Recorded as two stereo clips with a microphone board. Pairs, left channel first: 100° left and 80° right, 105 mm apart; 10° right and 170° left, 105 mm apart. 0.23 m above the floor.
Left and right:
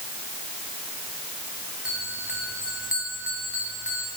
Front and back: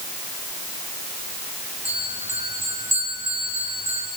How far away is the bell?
About 9.5 m.